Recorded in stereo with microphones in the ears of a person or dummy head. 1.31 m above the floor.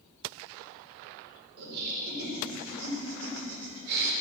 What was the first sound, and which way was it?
Laughter, 50° right (ahead or behind).